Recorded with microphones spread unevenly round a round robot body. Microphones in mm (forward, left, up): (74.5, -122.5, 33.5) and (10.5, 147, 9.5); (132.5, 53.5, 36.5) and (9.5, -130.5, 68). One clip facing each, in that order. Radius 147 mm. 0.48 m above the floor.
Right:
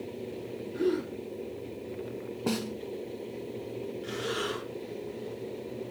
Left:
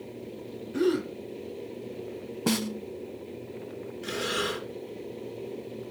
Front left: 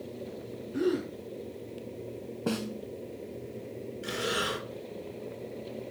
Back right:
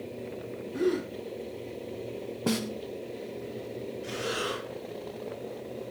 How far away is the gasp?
About 2.5 m.